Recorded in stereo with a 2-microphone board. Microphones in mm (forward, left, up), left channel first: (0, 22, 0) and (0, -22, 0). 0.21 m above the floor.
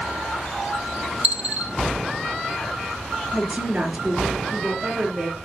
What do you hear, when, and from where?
1.2 s a dropped coin: 40° right (ahead or behind), 1.5 m
3.3 s a woman speaking: 25° right (ahead or behind), 3 m